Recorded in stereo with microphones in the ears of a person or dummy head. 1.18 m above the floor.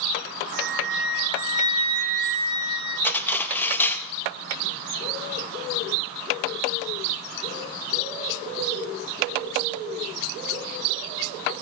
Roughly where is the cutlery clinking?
Centre.